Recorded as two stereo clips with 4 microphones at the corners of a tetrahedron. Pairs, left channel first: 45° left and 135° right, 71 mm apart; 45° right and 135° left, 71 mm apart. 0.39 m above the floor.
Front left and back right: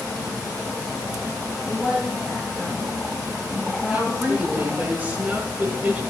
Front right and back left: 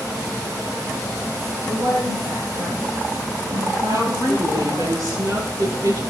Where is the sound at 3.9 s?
155° left, 7.5 m.